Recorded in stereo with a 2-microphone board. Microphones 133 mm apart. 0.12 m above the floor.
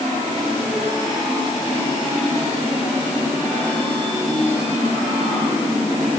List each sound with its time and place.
Only background noise.